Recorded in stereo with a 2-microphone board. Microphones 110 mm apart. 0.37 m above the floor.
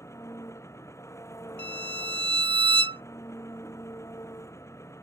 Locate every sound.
0.0 s an engine running: 25° left (ahead or behind)
1.6 s a violin: 55° right (ahead or behind)